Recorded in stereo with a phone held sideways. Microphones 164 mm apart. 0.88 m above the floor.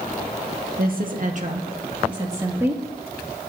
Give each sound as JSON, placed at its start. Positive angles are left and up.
{"t": 0.8, "sound": "a woman speaking", "side_deg": -70, "distance_m": 1.0}